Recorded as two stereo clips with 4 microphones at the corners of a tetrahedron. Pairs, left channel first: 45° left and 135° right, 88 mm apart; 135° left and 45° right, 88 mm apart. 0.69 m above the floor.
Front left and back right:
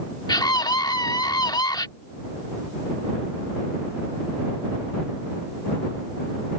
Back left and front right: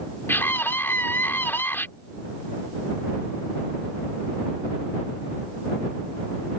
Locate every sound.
0.3 s a scream: 75° left